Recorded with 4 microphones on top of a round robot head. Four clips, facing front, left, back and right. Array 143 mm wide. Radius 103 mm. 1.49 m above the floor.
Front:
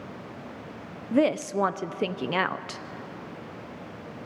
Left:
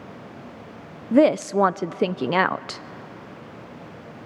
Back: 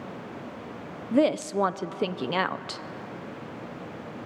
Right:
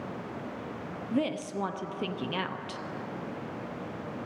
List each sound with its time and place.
1.1 s a woman speaking: 95° left, 0.5 m